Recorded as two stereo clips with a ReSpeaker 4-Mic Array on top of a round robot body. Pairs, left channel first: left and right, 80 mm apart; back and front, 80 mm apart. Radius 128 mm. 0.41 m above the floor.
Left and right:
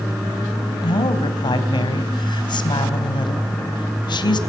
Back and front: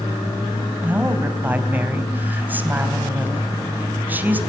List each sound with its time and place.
0.8 s a woman speaking: 70° left, 3.5 m